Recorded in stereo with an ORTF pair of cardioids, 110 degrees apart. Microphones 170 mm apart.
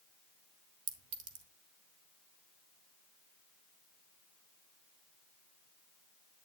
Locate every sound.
0.9 s a clink: 50° right, 2.0 m